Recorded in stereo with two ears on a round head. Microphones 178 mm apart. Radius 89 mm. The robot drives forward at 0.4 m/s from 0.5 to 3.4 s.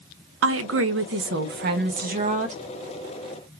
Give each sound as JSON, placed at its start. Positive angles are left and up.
{"t": 0.4, "sound": "a woman speaking", "side_deg": -70, "distance_m": 0.7}